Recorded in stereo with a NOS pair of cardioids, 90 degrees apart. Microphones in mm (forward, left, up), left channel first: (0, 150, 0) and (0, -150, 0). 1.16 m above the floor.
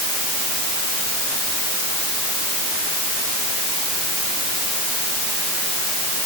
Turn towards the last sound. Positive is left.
No sound to turn to.